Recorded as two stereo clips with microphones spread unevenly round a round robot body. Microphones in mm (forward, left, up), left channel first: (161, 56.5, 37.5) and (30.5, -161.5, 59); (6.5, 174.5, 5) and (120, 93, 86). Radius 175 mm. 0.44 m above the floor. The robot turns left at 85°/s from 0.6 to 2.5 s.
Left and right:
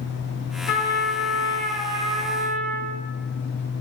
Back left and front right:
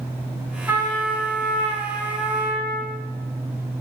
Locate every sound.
0.7 s a trumpet: 65° left, 1.3 m; by 3.0 s 90° right, 1.3 m